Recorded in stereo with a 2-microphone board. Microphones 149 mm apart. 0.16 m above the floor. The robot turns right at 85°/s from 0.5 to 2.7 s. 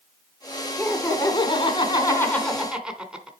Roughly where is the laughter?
Ahead left.